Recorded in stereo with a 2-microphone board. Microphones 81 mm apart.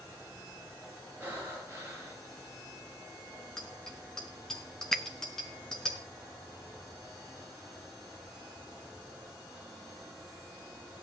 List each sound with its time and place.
1.2 s breathing: 25° right (ahead or behind), 6 m
3.6 s a bicycle bell: 5° left (ahead or behind), 5 m
4.9 s a finger snap: 5° left (ahead or behind), 1.0 m